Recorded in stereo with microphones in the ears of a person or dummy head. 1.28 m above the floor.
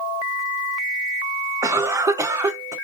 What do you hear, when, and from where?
1.6 s a cough: 15° right (ahead or behind), 0.6 m